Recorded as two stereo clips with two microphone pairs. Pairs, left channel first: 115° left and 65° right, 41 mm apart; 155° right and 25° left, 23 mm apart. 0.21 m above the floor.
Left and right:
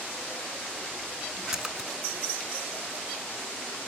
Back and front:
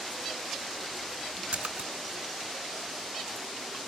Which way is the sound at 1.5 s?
10° left.